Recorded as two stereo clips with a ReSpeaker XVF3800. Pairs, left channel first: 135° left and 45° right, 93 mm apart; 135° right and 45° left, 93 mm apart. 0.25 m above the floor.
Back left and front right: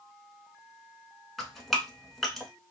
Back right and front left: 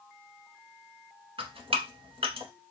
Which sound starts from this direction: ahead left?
Dripping, at 1.4 s.